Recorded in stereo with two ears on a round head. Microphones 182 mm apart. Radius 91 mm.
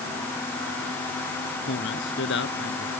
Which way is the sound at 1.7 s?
60° left (ahead or behind).